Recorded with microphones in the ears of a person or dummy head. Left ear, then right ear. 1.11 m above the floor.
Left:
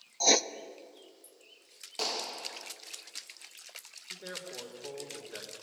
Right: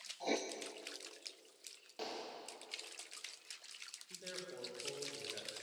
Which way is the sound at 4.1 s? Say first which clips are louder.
Left 8 dB; 25° left (ahead or behind).